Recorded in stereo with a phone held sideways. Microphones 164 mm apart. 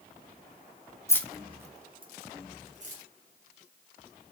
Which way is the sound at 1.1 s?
15° left (ahead or behind).